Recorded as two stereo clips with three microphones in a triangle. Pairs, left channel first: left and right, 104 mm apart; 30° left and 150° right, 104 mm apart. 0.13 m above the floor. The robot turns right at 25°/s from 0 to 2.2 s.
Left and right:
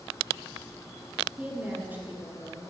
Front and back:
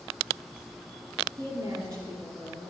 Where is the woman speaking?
165° right, 1.5 m; by 2.7 s 145° right, 1.5 m.